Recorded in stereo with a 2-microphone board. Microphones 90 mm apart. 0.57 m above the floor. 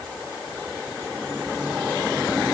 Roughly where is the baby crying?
I don't hear a baby crying.